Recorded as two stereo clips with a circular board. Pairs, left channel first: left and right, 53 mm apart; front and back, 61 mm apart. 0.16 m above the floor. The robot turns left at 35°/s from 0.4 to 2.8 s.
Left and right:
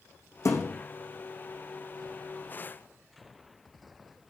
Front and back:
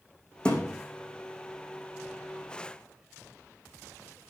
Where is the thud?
75° left, 4 m; by 0.8 s 60° left, 4 m.